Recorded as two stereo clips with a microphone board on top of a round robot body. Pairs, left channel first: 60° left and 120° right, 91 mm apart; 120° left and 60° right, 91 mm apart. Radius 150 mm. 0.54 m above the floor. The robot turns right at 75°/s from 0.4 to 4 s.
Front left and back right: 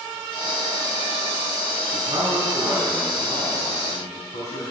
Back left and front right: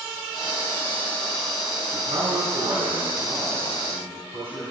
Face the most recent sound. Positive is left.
turn(degrees=65)